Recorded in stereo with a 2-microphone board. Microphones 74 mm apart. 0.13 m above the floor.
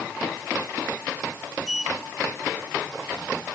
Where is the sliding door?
5° right (ahead or behind).